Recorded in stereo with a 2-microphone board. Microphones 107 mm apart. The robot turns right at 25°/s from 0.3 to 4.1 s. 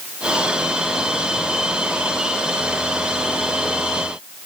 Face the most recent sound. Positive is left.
No sound to turn to.